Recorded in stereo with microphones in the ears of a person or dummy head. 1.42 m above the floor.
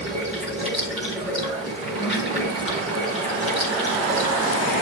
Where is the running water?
35° right (ahead or behind), 3 m.